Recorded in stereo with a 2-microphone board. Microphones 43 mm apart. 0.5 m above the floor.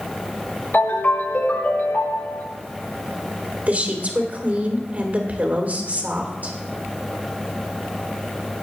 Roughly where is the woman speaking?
Right.